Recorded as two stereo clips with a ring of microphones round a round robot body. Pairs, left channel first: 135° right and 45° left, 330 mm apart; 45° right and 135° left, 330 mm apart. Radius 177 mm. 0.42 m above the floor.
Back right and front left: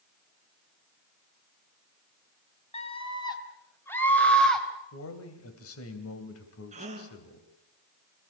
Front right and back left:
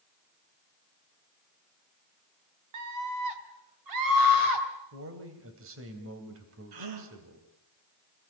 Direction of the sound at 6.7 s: 115° left.